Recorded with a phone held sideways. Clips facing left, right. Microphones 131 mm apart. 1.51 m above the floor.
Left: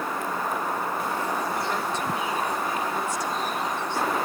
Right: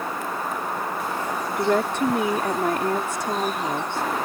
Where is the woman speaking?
65° right (ahead or behind).